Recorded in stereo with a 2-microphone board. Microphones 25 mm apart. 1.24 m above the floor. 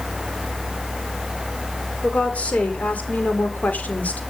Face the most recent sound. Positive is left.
turn(degrees=85)